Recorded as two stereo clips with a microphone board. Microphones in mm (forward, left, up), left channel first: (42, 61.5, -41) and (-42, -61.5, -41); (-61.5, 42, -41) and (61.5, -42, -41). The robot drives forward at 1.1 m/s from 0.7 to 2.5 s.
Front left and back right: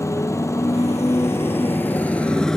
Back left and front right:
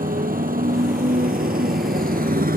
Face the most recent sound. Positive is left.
turn(degrees=-30)